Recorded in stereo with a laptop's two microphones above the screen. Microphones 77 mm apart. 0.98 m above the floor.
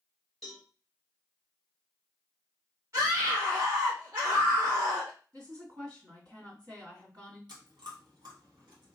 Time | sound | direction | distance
0.4 | a cowbell | 5° left (ahead or behind) | 1.1 m
2.9 | a scream | 40° right (ahead or behind) | 1.2 m
5.3 | a woman speaking | 60° right (ahead or behind) | 1.9 m
7.5 | chewing | 70° right (ahead or behind) | 1.5 m